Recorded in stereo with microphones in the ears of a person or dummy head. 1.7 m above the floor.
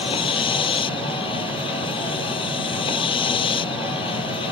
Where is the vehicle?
30° left (ahead or behind).